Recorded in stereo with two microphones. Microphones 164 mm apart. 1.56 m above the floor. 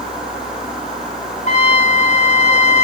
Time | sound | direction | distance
1.5 | a trumpet | 45° left (ahead or behind) | 0.7 m